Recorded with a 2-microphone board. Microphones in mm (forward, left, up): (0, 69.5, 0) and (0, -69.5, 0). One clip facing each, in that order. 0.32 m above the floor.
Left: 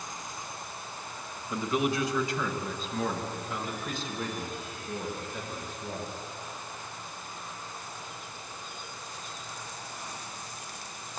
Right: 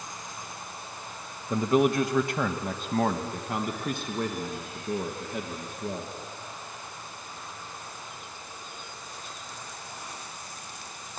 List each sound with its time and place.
1.5 s a man speaking: 40° right (ahead or behind), 1.1 m; by 6.1 s 60° right (ahead or behind), 4 m